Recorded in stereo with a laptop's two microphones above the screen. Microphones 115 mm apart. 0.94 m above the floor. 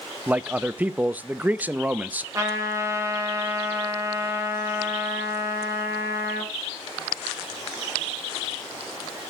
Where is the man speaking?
15° right (ahead or behind), 0.6 m.